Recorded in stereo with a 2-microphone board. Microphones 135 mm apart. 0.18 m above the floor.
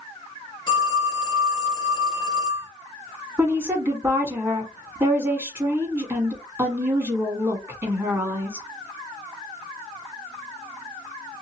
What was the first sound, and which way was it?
A phone ringing, 35° left (ahead or behind).